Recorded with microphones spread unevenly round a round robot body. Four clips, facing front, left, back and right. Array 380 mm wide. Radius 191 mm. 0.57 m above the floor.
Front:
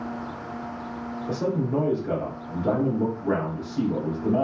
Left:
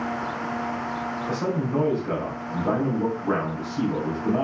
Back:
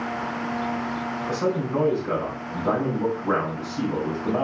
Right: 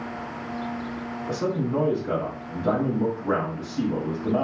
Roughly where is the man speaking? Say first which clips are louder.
Right 1 dB, even; ahead.